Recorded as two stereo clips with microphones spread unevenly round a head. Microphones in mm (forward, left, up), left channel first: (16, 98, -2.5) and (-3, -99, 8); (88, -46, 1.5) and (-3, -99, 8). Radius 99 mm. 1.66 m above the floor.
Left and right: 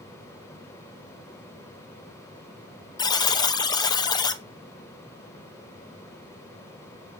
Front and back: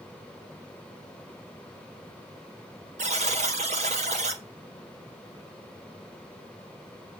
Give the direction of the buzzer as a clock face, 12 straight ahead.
7 o'clock.